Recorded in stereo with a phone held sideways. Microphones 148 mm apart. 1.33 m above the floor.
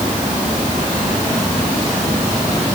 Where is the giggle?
I don't hear a giggle.